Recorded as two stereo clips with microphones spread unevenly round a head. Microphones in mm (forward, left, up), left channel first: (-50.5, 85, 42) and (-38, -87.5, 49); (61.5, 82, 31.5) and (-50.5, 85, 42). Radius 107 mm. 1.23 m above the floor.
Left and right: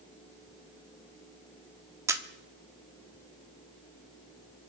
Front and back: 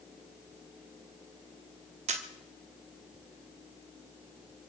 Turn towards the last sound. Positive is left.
turn(degrees=-155)